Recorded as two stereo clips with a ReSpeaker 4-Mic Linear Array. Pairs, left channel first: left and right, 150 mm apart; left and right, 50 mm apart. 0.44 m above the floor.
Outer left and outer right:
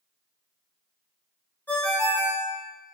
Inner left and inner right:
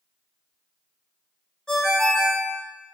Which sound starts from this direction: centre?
A ringtone, at 1.7 s.